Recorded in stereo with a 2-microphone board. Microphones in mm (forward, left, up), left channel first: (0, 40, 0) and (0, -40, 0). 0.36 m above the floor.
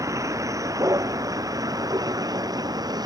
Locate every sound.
0.0 s a vehicle: 45° right (ahead or behind); by 3.1 s 55° right (ahead or behind)